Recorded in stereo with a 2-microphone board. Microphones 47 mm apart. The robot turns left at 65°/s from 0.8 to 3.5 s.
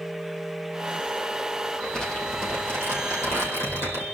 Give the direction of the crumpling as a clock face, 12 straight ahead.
6 o'clock.